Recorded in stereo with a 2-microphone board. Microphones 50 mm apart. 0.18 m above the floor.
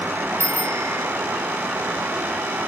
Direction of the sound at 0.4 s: 85° right.